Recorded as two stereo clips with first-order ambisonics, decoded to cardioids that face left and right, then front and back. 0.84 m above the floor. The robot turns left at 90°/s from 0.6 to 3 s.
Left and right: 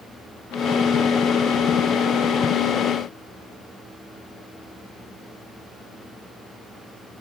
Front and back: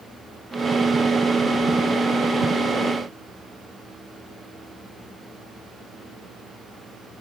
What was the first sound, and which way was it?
Only background noise.